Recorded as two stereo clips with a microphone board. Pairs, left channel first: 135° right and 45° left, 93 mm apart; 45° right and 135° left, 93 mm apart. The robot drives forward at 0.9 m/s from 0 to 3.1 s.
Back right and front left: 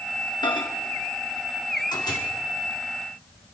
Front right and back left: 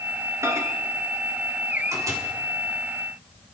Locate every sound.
0.4 s a microwave: 165° right, 1.5 m; by 2.2 s 175° right, 3 m